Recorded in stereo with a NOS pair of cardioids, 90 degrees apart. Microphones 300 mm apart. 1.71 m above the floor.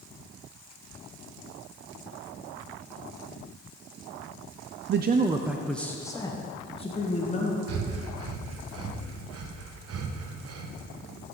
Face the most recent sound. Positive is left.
turn(degrees=-55)